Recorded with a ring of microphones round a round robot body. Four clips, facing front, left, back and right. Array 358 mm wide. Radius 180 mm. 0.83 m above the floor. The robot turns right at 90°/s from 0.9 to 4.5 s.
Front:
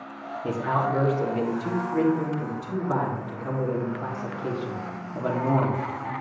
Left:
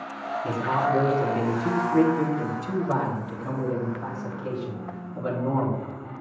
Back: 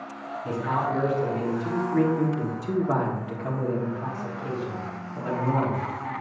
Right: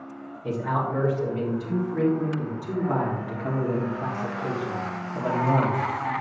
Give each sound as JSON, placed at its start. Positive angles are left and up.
{"t": 0.4, "sound": "a man speaking", "azimuth_deg": 10, "distance_m": 1.9}